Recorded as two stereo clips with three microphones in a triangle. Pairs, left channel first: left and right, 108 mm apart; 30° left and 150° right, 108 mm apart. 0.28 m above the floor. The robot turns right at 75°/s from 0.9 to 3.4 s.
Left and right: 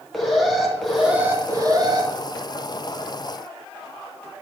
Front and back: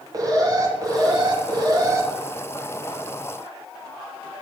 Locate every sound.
0.1 s an alarm: straight behind, 1.6 m; by 2.1 s 95° right, 1.6 m